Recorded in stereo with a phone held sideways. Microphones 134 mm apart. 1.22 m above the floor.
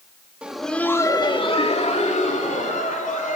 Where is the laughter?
10° right (ahead or behind), 1.7 m; by 3.4 s 80° left, 4 m.